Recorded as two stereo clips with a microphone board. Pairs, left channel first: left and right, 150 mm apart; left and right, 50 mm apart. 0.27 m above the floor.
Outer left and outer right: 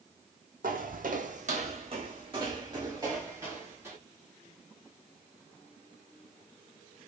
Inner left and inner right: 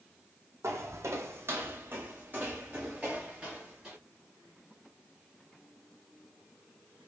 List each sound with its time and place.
0.6 s footsteps: 80° right, 1.0 m; by 4.0 s 15° right (ahead or behind), 3 m